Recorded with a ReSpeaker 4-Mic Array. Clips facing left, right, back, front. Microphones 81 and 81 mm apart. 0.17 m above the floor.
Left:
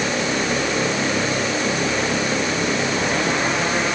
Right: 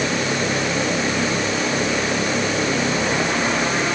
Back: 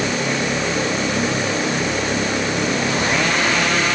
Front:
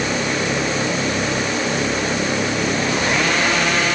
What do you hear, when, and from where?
Only background noise.